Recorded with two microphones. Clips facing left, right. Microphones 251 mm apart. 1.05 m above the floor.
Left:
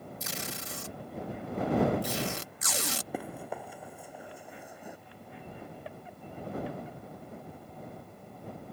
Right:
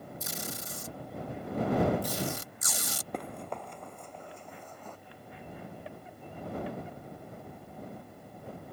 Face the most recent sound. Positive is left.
turn(degrees=10)  # may be behind; listen again after turning